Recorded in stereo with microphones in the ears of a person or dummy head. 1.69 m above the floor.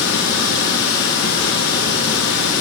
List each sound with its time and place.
0.0 s running water: 75° left (ahead or behind), 2.5 m